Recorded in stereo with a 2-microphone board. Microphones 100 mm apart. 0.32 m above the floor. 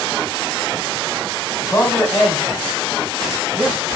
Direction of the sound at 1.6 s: 35° left (ahead or behind).